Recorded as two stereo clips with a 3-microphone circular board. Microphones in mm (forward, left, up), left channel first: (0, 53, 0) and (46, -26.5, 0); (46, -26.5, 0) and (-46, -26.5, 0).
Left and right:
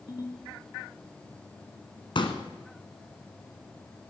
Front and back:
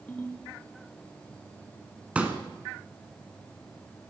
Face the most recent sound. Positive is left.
turn(degrees=105)